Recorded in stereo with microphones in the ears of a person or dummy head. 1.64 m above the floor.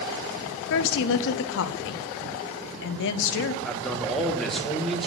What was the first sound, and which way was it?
A woman speaking, 65° left (ahead or behind).